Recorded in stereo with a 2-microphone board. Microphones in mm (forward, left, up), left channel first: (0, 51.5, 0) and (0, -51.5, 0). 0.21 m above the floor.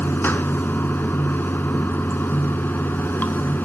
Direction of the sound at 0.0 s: 20° left (ahead or behind).